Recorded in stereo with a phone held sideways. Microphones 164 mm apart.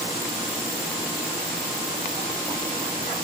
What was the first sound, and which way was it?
Only background noise.